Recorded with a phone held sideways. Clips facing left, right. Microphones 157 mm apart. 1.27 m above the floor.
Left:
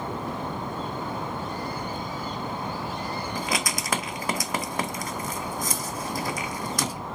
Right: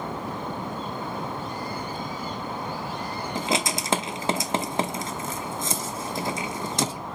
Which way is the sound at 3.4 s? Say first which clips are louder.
Right 6 dB; 25° right (ahead or behind).